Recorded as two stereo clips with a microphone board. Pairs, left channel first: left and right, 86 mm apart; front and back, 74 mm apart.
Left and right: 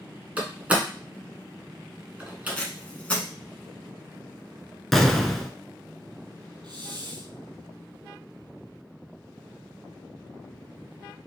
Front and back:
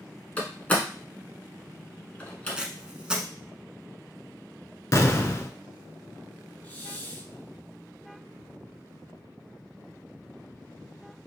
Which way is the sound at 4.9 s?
5° left.